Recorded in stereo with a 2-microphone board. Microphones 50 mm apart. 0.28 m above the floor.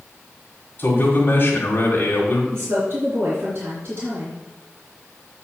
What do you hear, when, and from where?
0.8 s a man speaking: 40° left (ahead or behind), 1.8 m
2.5 s a woman speaking: 40° right (ahead or behind), 3.5 m